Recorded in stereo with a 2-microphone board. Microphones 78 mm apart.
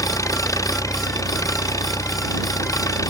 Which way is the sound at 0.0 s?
50° left (ahead or behind).